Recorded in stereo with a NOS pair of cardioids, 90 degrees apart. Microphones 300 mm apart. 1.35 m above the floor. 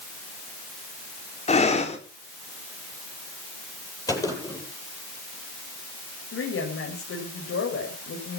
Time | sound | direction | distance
1.5 | breathing | 20° left | 4 m
4.1 | a gunshot | 10° left | 10 m
6.3 | a woman speaking | 50° left | 6.5 m